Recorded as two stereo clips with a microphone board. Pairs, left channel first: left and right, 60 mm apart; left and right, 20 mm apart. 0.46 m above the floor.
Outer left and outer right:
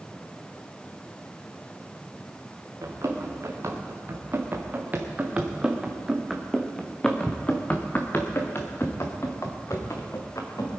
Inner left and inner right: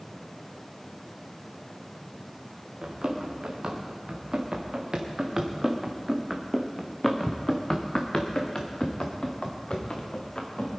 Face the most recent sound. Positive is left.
turn(degrees=60)  # may be behind; listen again after turning